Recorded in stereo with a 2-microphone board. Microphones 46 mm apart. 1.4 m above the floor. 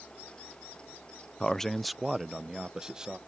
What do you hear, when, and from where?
1.4 s a man speaking: 20° left (ahead or behind); by 3.2 s 20° right (ahead or behind)